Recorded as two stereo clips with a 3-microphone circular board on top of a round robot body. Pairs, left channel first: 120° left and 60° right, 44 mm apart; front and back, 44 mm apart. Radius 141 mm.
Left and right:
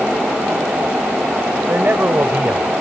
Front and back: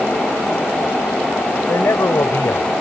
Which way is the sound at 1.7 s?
15° right.